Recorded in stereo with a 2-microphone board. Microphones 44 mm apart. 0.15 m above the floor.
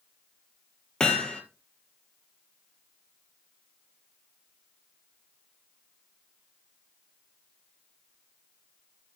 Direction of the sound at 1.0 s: 20° left (ahead or behind).